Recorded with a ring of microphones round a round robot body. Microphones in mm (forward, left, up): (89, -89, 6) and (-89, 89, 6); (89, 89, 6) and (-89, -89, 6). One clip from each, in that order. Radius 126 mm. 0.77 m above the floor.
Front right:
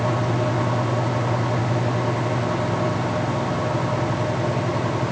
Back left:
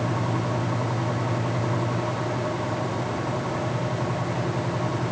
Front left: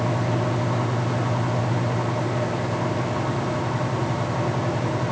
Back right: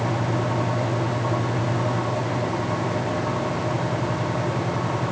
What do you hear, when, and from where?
Only background noise.